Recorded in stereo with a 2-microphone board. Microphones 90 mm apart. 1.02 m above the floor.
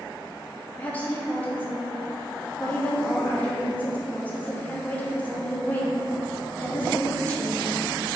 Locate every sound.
0.8 s a woman speaking: 20° left (ahead or behind), 0.9 m